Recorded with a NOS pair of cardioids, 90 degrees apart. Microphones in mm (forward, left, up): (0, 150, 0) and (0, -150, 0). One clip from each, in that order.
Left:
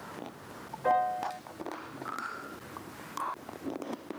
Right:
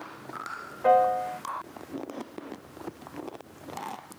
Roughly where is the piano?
Ahead right.